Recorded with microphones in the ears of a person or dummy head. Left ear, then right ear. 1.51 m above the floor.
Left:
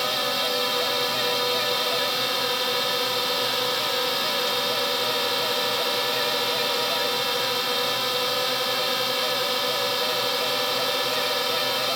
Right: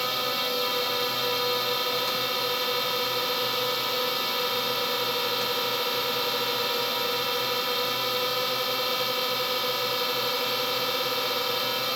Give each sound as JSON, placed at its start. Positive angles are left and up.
{"t": 0.0, "sound": "a drone", "side_deg": 10}